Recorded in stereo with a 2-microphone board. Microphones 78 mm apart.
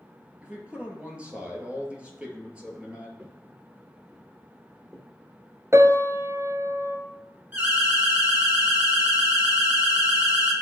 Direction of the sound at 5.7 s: 35° right (ahead or behind).